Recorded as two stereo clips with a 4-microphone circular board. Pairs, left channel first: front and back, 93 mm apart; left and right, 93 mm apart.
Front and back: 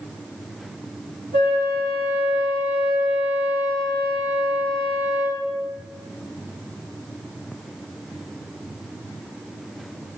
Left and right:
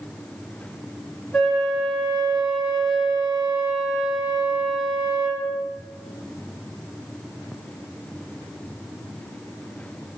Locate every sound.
1.3 s a flute: straight ahead, 1.3 m